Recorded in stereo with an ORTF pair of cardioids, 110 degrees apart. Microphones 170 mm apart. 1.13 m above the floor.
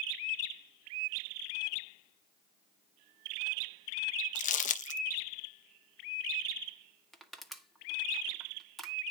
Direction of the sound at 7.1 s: Straight ahead.